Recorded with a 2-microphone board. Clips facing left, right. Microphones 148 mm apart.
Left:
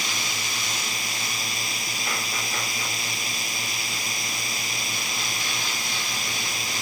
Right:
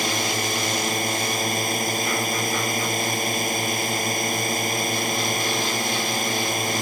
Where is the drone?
50° right (ahead or behind).